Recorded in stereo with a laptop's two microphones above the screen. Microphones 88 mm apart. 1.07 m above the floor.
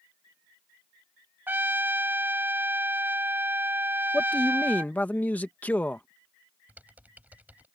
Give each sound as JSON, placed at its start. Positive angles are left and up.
{"t": 1.5, "sound": "a trumpet", "side_deg": -20}
{"t": 4.1, "sound": "a man speaking", "side_deg": 20}
{"t": 6.7, "sound": "typing on a keyboard", "side_deg": -20}